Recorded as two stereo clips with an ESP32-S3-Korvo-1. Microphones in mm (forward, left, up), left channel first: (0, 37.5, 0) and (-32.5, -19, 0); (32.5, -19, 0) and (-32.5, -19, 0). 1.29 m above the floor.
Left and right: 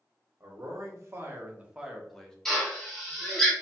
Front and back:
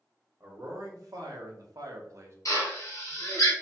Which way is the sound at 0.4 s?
150° right.